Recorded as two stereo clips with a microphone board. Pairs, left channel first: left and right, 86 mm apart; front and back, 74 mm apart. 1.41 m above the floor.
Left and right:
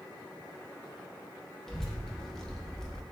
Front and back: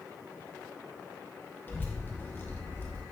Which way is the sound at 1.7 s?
15° left.